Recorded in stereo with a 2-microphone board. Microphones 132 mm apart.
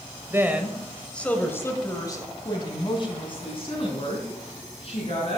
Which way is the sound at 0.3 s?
20° right (ahead or behind).